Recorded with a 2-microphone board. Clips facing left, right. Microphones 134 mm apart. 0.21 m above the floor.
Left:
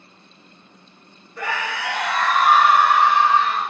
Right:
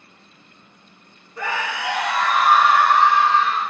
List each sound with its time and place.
1.4 s a scream: 25° right (ahead or behind), 1.5 m; by 3.7 s 30° left (ahead or behind), 1.1 m